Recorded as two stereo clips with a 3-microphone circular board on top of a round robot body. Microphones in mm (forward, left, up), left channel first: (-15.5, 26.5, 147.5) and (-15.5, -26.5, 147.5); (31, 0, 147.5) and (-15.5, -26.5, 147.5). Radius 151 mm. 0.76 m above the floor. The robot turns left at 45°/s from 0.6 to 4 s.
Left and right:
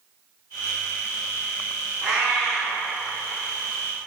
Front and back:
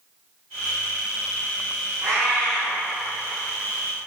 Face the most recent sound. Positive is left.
turn(degrees=110)